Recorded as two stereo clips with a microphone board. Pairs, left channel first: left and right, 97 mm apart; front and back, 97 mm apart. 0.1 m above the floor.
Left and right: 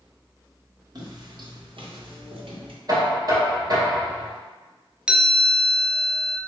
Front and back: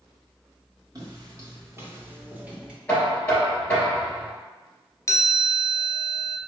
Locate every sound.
0.9 s footsteps: 135° right, 1.8 m; by 2.8 s 100° right, 1.9 m
2.9 s knocking: 70° right, 1.8 m
5.1 s a chime: 20° right, 0.6 m